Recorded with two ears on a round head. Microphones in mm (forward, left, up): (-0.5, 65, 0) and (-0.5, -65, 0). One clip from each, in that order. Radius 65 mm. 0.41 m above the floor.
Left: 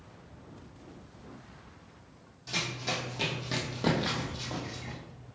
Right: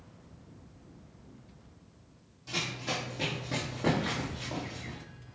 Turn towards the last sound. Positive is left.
turn(degrees=75)  # may be behind; listen again after turning